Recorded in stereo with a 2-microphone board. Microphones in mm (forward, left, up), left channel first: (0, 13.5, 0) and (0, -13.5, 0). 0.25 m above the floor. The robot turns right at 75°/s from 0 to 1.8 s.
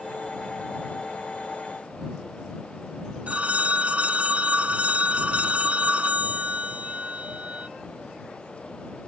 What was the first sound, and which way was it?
A phone ringing, 55° right (ahead or behind).